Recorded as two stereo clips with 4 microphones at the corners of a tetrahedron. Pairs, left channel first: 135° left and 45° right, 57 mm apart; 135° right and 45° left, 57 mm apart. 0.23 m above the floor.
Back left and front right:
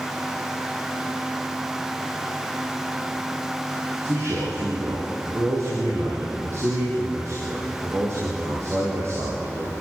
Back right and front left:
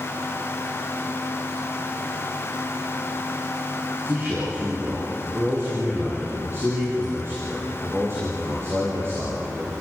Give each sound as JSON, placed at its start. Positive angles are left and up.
{"t": 4.0, "sound": "a man speaking", "azimuth_deg": 0, "distance_m": 8.0}